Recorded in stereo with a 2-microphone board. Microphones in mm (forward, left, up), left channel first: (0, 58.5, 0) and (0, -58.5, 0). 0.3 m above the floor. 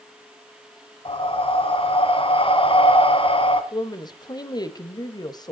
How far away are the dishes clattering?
I don't hear dishes clattering.